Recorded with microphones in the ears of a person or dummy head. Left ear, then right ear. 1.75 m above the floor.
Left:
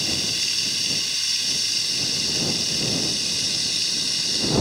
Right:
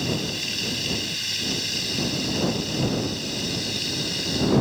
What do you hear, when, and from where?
0.0 s running water: 40° left (ahead or behind)